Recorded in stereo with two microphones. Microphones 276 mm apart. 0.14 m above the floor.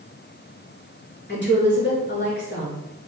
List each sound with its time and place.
1.3 s a woman speaking: 40° left (ahead or behind), 2 m